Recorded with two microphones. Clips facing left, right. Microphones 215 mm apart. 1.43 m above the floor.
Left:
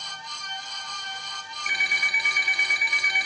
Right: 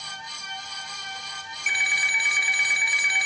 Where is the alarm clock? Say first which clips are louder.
Even; 40° left (ahead or behind), 1.9 m.